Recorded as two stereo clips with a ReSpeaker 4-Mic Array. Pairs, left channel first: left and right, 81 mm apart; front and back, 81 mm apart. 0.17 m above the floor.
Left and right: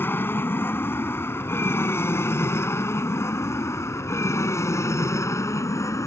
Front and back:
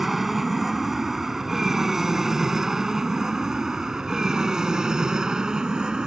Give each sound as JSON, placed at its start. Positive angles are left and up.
{"t": 0.0, "sound": "an aircraft", "azimuth_deg": 95}